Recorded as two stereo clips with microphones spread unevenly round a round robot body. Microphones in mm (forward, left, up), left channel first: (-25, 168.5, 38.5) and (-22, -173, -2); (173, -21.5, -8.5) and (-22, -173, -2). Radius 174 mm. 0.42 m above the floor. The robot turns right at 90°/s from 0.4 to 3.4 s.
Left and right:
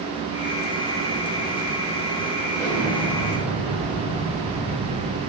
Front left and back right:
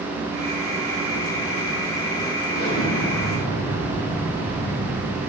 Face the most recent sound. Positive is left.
turn(degrees=75)